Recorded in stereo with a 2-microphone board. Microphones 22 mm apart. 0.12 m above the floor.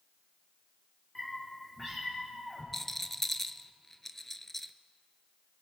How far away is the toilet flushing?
I don't hear a toilet flushing.